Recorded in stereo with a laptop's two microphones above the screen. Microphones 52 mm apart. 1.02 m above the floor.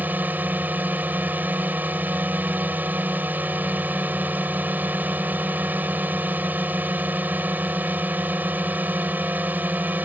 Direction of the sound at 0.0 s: 35° right (ahead or behind).